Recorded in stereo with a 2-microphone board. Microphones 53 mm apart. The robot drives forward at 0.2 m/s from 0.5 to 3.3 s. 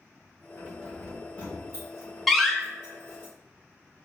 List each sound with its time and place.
0.6 s keys jangling: 60° left (ahead or behind), 1.8 m; by 3.3 s 50° left (ahead or behind), 2 m
2.3 s a door slam: centre (ahead or behind), 0.5 m